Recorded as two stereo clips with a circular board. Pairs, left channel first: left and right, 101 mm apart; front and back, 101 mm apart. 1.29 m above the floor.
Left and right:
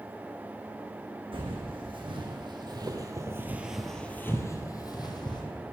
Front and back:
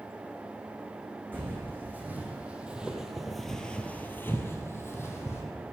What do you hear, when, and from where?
1.3 s footsteps: 110° right, 3.5 m; by 5.4 s 60° left, 2.5 m